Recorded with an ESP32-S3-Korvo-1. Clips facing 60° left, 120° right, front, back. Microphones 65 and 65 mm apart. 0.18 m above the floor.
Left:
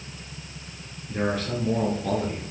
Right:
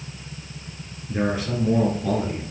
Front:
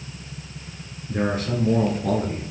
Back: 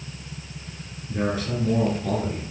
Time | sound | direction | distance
1.1 | a man speaking | 45° right | 2.5 m